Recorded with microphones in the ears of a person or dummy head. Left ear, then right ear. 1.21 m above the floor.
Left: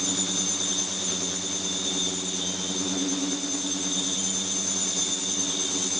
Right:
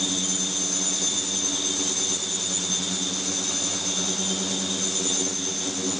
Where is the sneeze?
I don't hear a sneeze.